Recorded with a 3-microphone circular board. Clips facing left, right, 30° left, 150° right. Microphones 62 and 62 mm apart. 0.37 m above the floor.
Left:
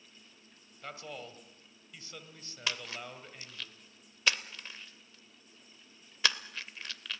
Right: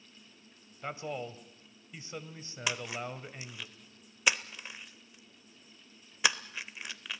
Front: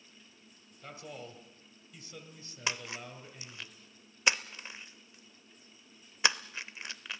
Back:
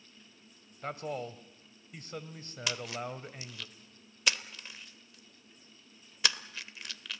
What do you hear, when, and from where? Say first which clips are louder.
0.8 s a man speaking: right 6 dB, back 8 dB; 150° right, 1.7 m
2.7 s a splash: right 3 dB, back 1 dB; 20° right, 0.7 m